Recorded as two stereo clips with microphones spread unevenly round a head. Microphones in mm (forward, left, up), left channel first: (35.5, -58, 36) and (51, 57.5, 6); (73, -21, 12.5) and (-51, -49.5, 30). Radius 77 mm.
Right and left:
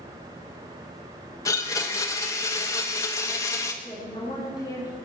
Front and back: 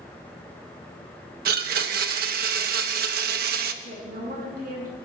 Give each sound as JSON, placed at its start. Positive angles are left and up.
{"t": 1.4, "sound": "a blender", "azimuth_deg": -170, "distance_m": 1.0}
{"t": 3.8, "sound": "a woman speaking", "azimuth_deg": -165, "distance_m": 9.5}